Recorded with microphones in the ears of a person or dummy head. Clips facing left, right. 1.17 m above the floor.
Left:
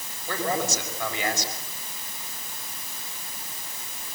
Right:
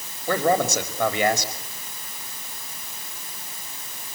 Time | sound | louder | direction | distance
0.3 | a man speaking | right 7 dB | 55° right (ahead or behind) | 5 m